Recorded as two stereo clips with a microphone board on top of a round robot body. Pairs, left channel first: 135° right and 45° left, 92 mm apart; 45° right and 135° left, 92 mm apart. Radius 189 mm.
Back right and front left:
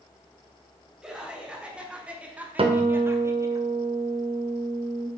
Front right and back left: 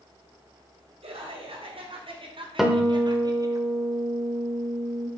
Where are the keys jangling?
I don't hear keys jangling.